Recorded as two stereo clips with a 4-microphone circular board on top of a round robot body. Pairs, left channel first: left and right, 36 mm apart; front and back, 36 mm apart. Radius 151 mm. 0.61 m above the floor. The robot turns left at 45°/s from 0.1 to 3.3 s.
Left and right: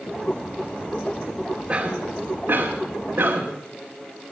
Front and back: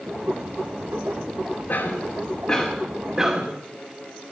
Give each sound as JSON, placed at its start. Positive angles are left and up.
{"t": 1.7, "sound": "a cough", "azimuth_deg": -35, "distance_m": 2.5}